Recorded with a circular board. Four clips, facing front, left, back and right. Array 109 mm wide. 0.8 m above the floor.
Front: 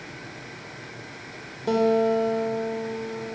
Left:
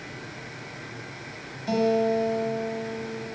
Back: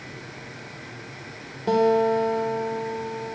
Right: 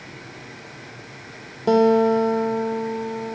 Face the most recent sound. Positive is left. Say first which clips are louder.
# right 7 dB, back 1 dB
turn(degrees=-95)